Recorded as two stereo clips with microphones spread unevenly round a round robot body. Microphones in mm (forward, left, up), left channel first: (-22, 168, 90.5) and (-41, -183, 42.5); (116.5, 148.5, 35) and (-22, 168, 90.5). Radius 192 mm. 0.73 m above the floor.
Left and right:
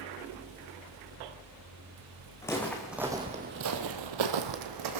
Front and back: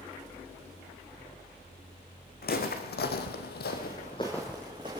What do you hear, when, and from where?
2.4 s footsteps: 10° left, 2 m; by 5.0 s 130° right, 1.8 m